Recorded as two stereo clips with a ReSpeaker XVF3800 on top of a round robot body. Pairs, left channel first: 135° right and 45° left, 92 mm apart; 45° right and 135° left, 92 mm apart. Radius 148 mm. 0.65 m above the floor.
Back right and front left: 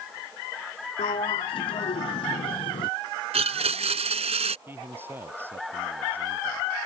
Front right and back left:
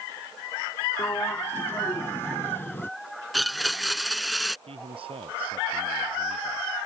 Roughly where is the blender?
Ahead left.